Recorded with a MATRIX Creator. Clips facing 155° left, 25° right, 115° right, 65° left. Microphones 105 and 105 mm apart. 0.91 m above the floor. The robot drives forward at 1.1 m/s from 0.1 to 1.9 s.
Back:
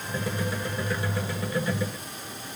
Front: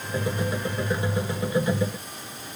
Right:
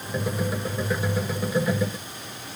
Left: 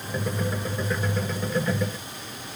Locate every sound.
Only background noise.